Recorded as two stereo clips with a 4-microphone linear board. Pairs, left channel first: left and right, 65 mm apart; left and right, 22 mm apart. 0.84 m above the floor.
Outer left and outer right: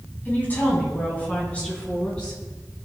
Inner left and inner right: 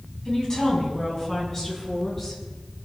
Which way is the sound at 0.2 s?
25° left (ahead or behind).